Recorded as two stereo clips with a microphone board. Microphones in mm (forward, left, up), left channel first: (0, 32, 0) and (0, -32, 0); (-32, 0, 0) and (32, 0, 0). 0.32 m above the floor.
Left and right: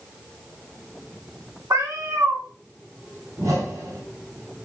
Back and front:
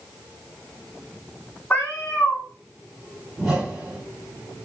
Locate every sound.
1.7 s a cat meowing: 120° right, 1.2 m
3.4 s a whoosh: 70° right, 1.8 m